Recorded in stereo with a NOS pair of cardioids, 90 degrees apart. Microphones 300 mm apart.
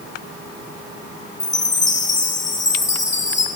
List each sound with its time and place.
1.4 s a chime: 25° left, 2 m